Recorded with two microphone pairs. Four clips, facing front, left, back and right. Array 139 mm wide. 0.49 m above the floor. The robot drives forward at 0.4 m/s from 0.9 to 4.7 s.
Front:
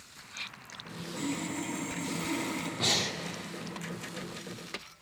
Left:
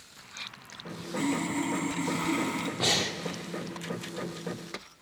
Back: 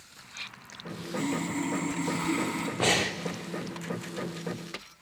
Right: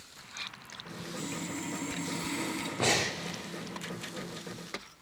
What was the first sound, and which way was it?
Sawing, 115° left.